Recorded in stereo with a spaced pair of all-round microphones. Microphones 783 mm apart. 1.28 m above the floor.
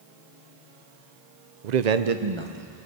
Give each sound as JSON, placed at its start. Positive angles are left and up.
{"t": 1.6, "sound": "a man speaking", "side_deg": -65, "distance_m": 0.7}